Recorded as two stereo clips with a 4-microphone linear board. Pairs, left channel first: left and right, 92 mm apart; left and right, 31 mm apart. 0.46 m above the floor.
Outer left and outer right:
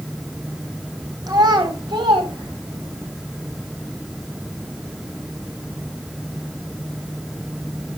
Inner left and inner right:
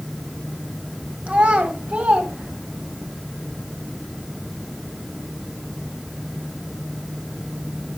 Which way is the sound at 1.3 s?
45° right (ahead or behind).